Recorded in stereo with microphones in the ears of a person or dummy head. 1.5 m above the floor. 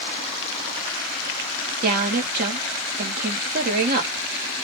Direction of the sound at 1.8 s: 50° right (ahead or behind).